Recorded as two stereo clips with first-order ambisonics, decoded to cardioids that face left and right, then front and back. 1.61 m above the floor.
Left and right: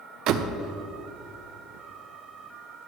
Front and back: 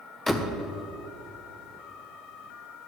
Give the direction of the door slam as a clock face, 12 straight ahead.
3 o'clock.